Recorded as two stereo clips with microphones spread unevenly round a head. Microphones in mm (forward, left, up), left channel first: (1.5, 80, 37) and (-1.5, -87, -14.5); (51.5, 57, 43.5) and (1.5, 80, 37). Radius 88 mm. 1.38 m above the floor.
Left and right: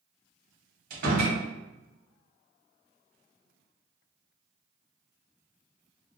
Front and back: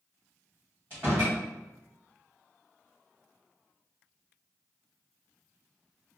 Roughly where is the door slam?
Behind right.